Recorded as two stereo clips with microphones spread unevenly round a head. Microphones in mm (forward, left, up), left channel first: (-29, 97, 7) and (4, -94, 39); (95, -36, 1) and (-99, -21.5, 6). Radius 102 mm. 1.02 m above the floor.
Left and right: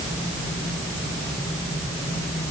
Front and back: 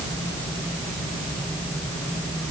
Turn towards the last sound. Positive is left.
No sound to turn to.